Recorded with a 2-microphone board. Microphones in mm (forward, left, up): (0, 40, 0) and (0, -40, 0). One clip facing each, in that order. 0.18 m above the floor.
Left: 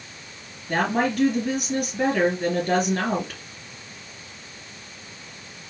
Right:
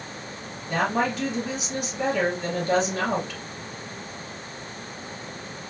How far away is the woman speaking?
About 4 m.